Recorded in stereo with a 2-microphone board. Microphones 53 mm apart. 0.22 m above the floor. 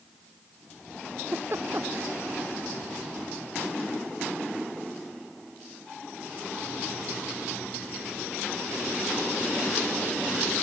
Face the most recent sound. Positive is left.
turn(degrees=-45)  # may be behind; listen again after turning